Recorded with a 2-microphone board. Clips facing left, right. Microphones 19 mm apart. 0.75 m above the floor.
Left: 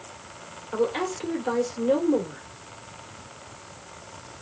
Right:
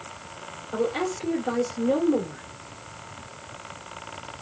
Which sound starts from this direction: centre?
A woman speaking, at 0.7 s.